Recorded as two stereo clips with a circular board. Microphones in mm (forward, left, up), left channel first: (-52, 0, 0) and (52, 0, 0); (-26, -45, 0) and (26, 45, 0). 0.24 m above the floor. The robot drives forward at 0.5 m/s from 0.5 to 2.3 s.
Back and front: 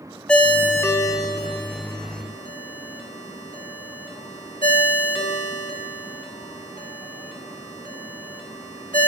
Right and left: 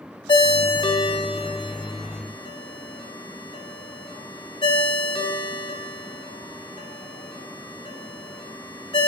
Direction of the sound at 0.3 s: 105° right.